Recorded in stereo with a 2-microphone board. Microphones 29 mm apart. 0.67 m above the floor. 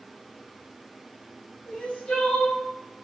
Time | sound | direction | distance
1.7 | crying | 45° left (ahead or behind) | 4.5 m